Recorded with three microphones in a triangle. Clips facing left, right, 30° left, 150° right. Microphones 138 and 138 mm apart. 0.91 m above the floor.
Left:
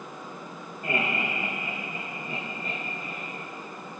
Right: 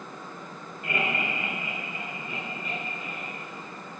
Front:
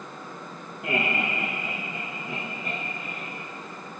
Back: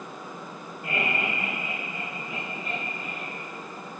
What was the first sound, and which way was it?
Laughter, 35° left.